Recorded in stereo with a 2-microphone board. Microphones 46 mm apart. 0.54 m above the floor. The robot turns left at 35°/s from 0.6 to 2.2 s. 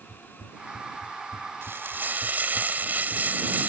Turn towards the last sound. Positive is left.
turn(degrees=-40)  # may be behind; listen again after turning